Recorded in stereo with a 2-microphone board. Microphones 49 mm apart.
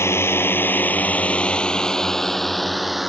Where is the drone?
60° left (ahead or behind); by 3.1 s 5° right (ahead or behind).